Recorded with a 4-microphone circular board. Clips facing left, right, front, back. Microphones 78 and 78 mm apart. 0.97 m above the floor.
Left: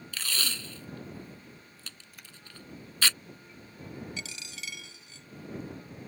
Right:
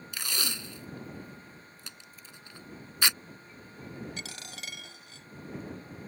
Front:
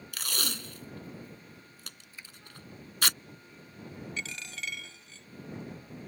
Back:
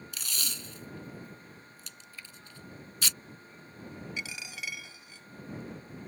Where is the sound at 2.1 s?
70° left.